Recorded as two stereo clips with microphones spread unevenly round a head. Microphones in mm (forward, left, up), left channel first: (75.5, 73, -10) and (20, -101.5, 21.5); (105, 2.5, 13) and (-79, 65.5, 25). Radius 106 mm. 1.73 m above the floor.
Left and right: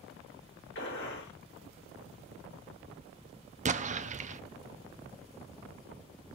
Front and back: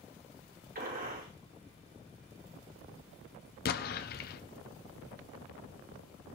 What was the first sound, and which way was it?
A gunshot, 115° left.